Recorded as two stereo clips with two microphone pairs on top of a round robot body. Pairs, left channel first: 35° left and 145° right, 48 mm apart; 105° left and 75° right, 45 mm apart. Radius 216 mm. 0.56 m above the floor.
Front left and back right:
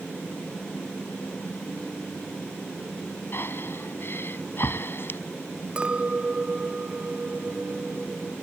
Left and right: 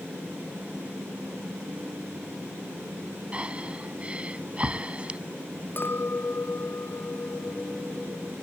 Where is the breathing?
5° right.